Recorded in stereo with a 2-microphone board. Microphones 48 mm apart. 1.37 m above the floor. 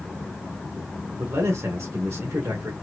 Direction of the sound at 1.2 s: 80° right.